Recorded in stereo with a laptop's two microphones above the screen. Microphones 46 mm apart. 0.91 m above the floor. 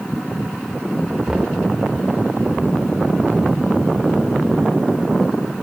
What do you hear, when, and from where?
1.3 s knocking: 15° right (ahead or behind), 2 m